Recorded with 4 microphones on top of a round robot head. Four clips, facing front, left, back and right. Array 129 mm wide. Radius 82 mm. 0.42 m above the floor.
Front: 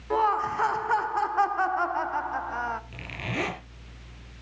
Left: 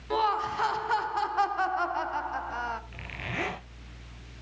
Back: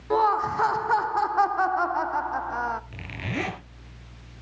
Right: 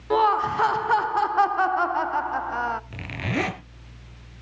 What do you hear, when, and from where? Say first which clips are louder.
0.1 s laughter: right 7 dB, back 2 dB; 105° right, 0.9 m
2.9 s a zipper: right 9 dB, back 1 dB; 95° right, 3.5 m